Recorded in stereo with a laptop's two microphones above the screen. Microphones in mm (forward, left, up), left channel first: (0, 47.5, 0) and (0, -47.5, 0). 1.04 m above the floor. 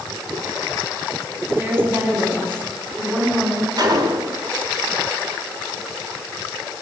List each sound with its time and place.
1.5 s a woman speaking: 25° right (ahead or behind), 9 m; by 3.7 s 20° right (ahead or behind), 10 m
3.8 s a gunshot: 50° right (ahead or behind), 3.5 m